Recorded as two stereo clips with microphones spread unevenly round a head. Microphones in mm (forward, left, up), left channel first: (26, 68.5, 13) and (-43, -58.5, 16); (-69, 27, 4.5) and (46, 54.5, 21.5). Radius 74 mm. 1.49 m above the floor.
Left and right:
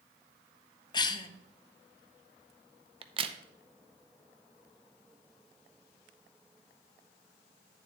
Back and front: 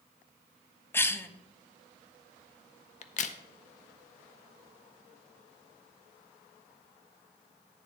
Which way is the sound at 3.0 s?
175° right.